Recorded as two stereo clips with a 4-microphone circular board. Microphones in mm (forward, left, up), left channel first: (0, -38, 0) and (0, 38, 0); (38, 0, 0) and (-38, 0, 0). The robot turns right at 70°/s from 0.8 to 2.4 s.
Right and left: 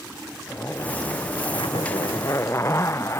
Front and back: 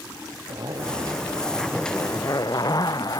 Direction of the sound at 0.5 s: 150° right.